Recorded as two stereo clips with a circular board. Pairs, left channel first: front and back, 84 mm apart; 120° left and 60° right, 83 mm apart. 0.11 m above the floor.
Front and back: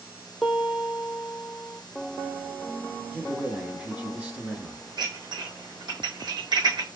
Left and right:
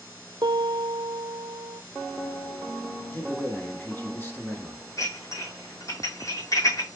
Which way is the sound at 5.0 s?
165° left.